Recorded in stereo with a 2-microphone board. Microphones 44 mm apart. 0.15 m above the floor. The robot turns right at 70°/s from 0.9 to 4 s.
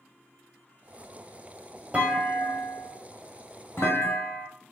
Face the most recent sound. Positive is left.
turn(degrees=110)